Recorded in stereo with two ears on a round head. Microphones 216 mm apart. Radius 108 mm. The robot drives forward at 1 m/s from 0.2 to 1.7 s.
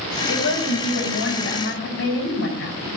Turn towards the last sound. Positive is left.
turn(degrees=50)  # may be behind; listen again after turning